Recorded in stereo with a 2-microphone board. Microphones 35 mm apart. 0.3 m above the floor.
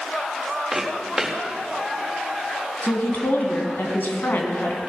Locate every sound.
0.7 s footsteps: 10° right (ahead or behind), 4 m
2.8 s a woman speaking: 65° left (ahead or behind), 2.5 m